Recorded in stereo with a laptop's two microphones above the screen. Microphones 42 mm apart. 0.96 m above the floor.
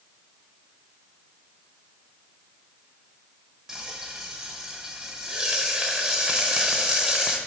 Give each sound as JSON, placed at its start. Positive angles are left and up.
{"t": 3.7, "sound": "frying", "side_deg": -10, "distance_m": 0.8}